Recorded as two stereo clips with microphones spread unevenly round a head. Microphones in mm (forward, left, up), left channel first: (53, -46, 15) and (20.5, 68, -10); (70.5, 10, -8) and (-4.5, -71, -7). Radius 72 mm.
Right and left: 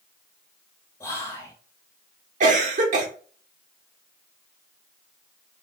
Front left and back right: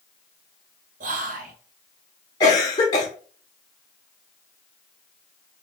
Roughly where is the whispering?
Behind right.